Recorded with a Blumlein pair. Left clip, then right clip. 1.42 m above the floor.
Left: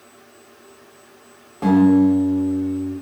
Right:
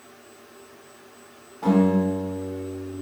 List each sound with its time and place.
1.6 s a guitar: 35° left, 1.2 m